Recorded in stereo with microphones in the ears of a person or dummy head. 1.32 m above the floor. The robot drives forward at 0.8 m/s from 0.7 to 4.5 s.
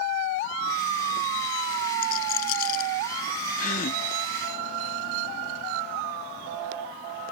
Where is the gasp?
40° left (ahead or behind); by 4.0 s 50° left (ahead or behind).